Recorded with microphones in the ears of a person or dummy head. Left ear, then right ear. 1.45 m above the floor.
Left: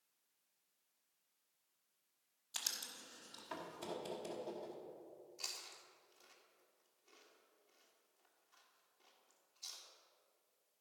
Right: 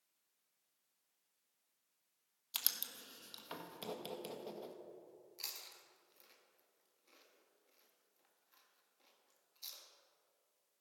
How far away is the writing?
About 1.1 m.